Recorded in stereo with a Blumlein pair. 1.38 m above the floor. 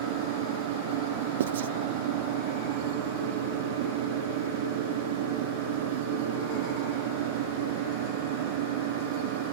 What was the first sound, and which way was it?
A fan, 50° right.